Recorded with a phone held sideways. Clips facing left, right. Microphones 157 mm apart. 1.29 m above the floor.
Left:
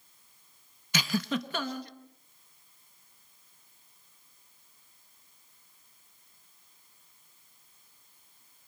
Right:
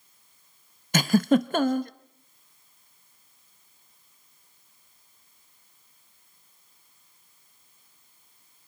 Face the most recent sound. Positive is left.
turn(degrees=-50)  # may be behind; listen again after turning